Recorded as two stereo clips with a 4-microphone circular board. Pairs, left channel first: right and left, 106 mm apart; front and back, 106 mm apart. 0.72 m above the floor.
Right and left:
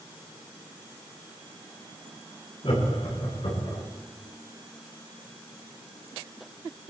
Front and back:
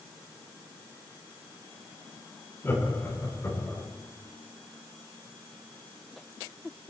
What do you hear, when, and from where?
2.6 s laughter: 65° right, 7.5 m